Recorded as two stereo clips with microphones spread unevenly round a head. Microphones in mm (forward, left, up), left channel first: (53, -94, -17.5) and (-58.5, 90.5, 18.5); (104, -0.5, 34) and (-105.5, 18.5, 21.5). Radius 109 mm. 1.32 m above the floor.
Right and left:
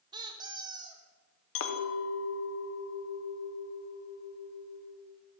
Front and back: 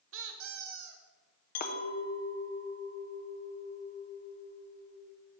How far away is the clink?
About 0.6 m.